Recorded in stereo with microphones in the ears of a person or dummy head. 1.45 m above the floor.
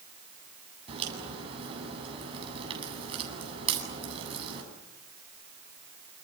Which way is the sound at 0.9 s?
35° right (ahead or behind).